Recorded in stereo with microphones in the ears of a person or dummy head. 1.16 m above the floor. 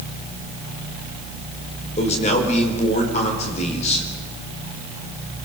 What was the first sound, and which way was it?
A man speaking, 40° left (ahead or behind).